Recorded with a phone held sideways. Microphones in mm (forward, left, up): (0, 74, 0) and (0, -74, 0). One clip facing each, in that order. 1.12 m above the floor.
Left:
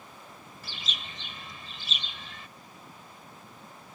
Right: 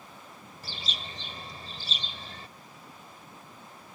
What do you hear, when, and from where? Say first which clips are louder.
0.6 s a bird: right 2 dB; 40° right (ahead or behind)